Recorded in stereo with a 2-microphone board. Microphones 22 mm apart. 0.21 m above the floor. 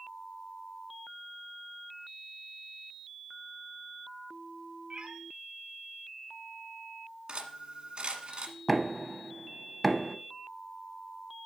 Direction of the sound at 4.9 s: 45° right (ahead or behind).